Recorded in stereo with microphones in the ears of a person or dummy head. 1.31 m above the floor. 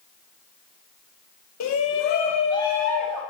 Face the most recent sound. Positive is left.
turn(degrees=0)  # may be behind; listen again after turning